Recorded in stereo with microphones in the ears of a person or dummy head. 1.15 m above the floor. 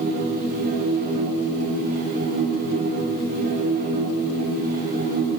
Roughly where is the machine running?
Right.